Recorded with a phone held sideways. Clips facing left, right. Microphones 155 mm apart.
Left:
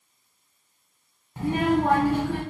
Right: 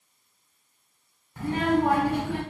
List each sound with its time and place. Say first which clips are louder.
1.4 s a child speaking: left 1 dB; 20° left (ahead or behind), 0.6 m; by 2.4 s 20° right (ahead or behind), 0.8 m